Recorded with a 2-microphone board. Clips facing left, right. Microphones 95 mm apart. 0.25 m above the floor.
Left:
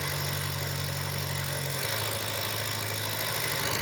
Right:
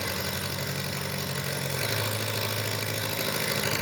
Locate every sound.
0.0 s an engine running: 75° right (ahead or behind), 2.5 m